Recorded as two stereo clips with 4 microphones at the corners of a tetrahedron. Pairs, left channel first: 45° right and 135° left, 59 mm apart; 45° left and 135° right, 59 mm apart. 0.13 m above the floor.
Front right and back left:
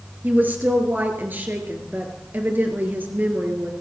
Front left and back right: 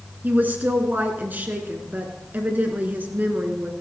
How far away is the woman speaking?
About 1.9 m.